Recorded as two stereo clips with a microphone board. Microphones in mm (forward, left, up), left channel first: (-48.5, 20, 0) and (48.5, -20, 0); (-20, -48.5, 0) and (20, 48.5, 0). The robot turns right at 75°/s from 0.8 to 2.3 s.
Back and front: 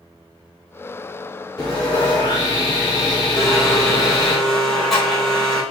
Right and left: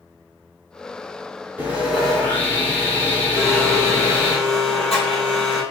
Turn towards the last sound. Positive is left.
turn(degrees=-115)